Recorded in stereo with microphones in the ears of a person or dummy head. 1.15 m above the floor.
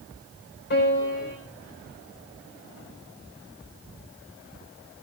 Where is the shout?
I don't hear a shout.